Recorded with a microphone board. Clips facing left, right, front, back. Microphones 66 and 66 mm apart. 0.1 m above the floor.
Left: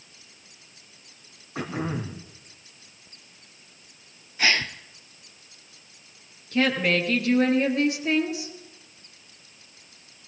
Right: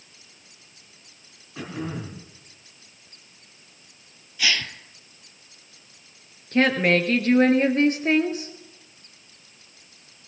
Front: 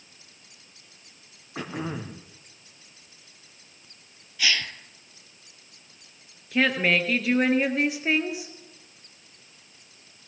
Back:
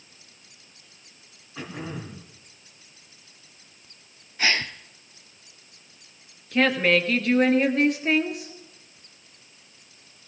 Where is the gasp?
135° left, 0.7 m.